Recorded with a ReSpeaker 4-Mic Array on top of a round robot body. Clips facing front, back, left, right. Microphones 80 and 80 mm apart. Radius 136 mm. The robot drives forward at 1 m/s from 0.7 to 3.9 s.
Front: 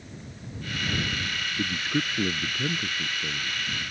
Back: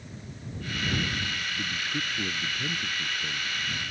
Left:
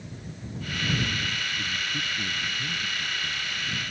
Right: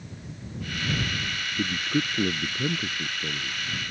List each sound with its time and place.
1.6 s a man speaking: 65° right; by 3.6 s 75° right